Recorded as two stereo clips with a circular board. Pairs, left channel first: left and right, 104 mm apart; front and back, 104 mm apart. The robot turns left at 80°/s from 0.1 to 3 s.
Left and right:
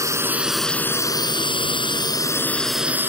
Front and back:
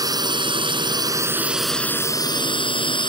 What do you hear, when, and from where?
0.0 s a drone: 140° right; by 3.1 s 25° right